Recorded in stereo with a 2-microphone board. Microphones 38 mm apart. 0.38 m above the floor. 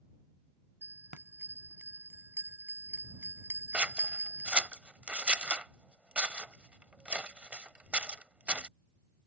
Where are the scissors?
35° right (ahead or behind).